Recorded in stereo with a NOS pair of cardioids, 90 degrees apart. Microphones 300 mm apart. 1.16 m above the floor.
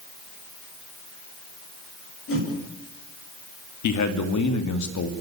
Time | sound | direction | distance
2.3 | a whoosh | 45° left | 8 m
3.8 | a man speaking | 70° left | 2.5 m